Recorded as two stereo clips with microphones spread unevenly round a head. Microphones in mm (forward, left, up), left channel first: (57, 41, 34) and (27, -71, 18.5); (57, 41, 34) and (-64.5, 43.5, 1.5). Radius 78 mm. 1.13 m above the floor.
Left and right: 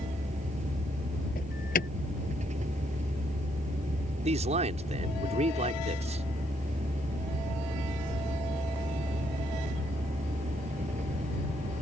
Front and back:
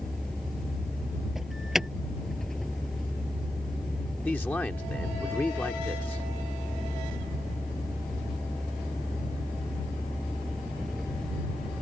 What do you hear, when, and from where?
0.0 s a vehicle: 85° right
1.4 s an alarm: 90° left
4.2 s a man speaking: 80° right